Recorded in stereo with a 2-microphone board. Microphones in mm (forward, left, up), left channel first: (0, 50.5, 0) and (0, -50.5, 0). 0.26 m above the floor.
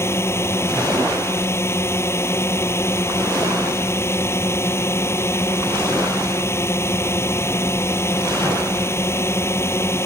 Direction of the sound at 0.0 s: 25° left (ahead or behind).